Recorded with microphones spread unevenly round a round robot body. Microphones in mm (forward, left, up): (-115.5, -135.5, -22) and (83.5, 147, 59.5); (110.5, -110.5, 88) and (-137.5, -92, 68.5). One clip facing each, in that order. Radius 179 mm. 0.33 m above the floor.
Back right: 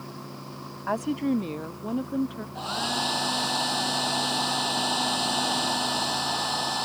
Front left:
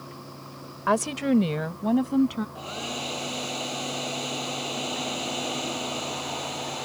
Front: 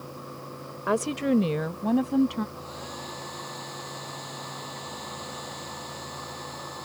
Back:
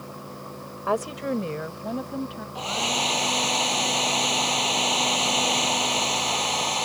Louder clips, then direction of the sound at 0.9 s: Front left 2 dB, front 3 dB; 70° left.